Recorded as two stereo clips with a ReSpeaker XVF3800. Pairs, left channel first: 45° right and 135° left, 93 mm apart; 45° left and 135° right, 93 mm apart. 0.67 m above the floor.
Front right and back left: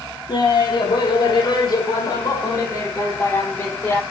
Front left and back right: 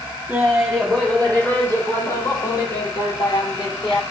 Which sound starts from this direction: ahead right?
Laughter, at 0.3 s.